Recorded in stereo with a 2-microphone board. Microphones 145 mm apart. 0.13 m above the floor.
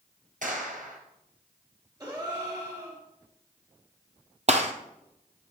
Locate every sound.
0.4 s a clap: 65° right (ahead or behind), 1.9 m
2.0 s a gasp: 25° right (ahead or behind), 2.5 m
4.5 s a gunshot: 50° right (ahead or behind), 0.9 m